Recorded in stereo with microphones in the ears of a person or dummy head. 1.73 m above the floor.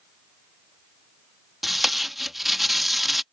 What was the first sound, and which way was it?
Tape being pulled, centre (ahead or behind).